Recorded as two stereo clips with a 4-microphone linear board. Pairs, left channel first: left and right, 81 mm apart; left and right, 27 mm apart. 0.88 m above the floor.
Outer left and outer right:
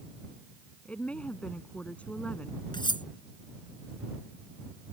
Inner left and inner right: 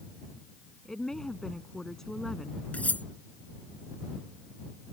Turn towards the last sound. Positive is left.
turn(degrees=80)